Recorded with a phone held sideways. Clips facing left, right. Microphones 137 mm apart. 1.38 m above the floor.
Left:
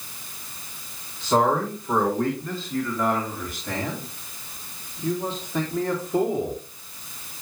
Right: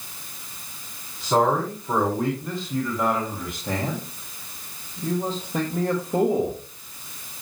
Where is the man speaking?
10° right (ahead or behind), 4 m; by 6.6 s 55° right (ahead or behind), 2.5 m.